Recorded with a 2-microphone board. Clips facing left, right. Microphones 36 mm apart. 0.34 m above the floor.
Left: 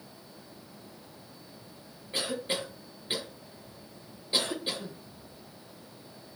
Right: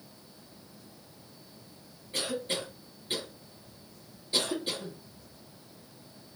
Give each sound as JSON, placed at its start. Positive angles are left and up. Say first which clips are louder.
{"t": 2.1, "sound": "a cough", "louder": "left 1 dB", "side_deg": 30, "distance_m": 1.5}